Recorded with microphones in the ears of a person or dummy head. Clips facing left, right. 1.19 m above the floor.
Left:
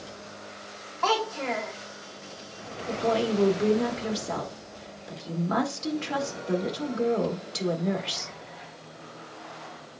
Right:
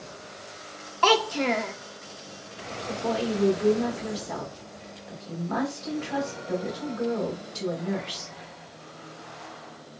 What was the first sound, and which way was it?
A child speaking, 40° right (ahead or behind).